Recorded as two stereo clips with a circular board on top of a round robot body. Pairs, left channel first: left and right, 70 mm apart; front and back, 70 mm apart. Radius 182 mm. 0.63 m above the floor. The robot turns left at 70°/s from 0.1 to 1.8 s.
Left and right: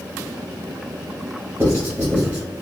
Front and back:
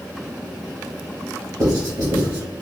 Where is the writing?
145° right, 1.4 m; by 2.4 s 160° right, 1.4 m.